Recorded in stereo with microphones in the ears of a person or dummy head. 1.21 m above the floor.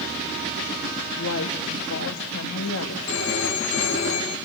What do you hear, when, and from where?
1.2 s a woman speaking: 75° left (ahead or behind), 2.0 m
3.1 s a phone ringing: 65° left (ahead or behind), 6 m